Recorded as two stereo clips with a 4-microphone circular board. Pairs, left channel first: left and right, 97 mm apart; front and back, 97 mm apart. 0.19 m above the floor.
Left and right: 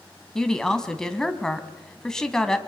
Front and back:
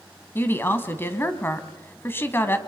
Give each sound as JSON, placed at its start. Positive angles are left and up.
{"t": 0.3, "sound": "a woman speaking", "azimuth_deg": 15, "distance_m": 1.5}